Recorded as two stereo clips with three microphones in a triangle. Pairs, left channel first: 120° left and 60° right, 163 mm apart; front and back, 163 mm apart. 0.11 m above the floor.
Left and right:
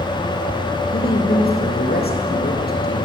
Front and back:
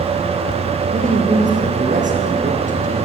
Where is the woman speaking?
140° left, 5.5 m.